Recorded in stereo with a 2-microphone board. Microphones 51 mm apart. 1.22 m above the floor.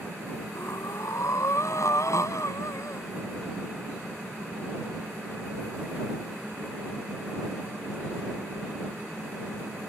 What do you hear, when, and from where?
0.6 s breathing: 70° left (ahead or behind)